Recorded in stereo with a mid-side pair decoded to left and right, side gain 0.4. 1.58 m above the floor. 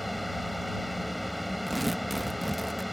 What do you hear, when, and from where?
0.0 s a fan: 5° left
1.7 s tearing paper: 10° right